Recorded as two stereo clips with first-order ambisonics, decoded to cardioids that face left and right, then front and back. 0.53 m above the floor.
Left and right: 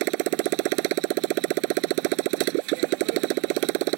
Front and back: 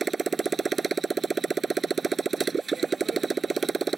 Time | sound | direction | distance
0.0 | a motorcycle | 105° right | ?